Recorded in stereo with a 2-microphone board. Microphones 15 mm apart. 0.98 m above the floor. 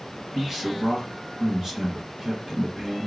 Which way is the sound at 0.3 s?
25° right (ahead or behind).